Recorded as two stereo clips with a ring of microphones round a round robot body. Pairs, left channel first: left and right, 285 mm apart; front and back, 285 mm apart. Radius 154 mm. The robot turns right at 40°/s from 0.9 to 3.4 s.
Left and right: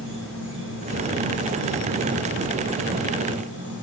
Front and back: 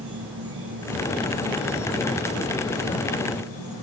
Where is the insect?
135° right, 2.5 m; by 3.8 s 35° right, 2.5 m.